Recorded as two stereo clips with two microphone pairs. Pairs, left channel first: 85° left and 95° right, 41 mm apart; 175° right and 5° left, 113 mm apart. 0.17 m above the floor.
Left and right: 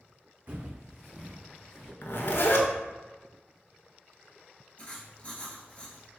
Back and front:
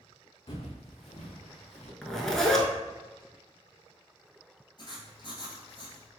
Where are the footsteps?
145° right, 0.7 m; by 1.9 s 160° left, 1.2 m.